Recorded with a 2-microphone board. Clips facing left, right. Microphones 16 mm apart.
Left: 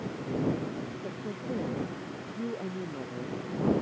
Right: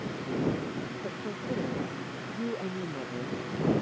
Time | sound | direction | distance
1.0 | a woman speaking | 20° right (ahead or behind) | ?